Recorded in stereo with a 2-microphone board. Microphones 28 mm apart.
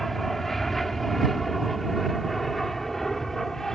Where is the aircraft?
5° left (ahead or behind); by 3.8 s 10° left (ahead or behind).